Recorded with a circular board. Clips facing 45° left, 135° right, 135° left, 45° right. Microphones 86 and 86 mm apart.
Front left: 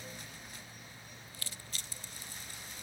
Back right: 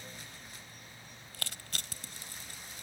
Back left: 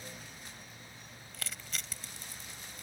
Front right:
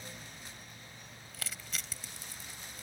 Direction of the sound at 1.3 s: 135° right.